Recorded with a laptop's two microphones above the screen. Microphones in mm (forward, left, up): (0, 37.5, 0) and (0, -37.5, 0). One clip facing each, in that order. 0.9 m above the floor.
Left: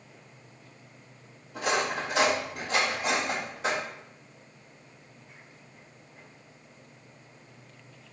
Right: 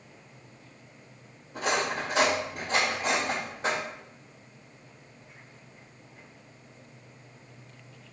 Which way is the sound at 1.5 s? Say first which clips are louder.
Even; 35° right (ahead or behind).